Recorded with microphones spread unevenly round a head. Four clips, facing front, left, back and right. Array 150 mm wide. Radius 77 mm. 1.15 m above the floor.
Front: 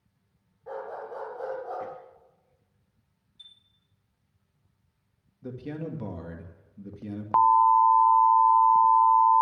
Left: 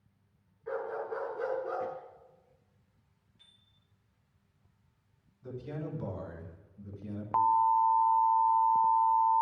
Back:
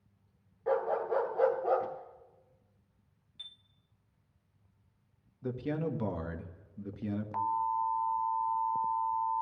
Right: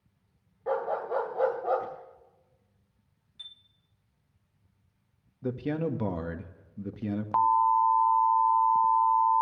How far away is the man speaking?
About 1.8 m.